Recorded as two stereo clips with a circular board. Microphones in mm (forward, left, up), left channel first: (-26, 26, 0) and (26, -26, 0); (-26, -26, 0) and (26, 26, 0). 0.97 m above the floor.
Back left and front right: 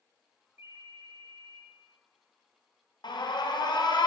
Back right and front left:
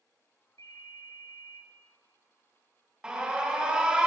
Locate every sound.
0.6 s a ringtone: 100° right, 1.7 m
3.0 s an alarm: 120° left, 0.7 m